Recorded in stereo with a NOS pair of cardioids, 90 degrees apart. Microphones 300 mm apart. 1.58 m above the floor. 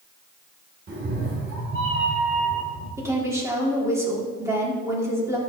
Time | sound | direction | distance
0.9 | a cat meowing | 40° right | 3 m
3.0 | a woman speaking | 10° right | 4 m